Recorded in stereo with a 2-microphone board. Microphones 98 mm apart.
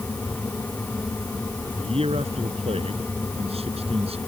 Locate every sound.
1.8 s a man speaking: 85° right; by 4.2 s 90° right